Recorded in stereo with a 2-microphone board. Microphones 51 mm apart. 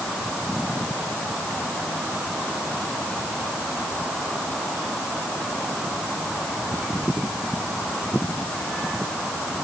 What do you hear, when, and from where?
Only background noise.